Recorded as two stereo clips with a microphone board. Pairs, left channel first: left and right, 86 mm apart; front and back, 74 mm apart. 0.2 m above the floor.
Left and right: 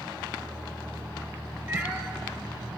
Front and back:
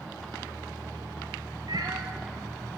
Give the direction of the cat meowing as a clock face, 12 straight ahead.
5 o'clock.